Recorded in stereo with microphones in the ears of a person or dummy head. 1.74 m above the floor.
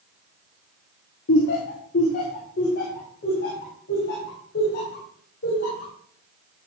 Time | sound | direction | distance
1.3 | laughter | 60° left (ahead or behind) | 0.8 m